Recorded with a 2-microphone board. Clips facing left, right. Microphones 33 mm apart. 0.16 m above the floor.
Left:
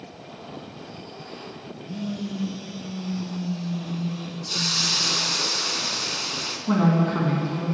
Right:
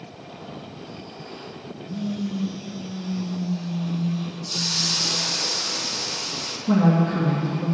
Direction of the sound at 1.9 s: 50° left (ahead or behind).